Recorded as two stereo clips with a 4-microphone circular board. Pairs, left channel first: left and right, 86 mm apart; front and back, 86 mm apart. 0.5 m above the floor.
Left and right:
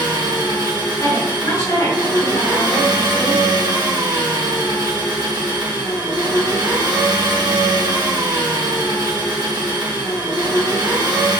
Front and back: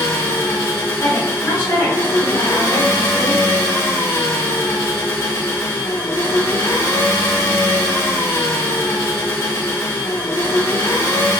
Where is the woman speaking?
60° left, 1.8 m.